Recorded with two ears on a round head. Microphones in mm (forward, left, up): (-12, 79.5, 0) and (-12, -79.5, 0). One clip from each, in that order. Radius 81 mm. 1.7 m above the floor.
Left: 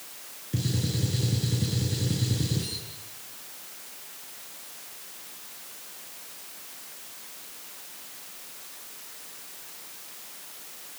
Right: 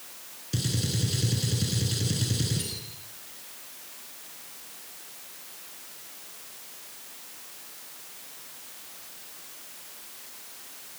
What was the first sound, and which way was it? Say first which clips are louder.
A gunshot: right 1 dB; 75° right (ahead or behind).